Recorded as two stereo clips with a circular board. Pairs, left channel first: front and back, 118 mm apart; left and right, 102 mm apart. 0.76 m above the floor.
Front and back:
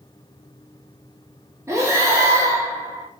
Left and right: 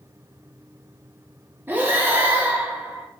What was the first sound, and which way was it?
Breathing, 140° right.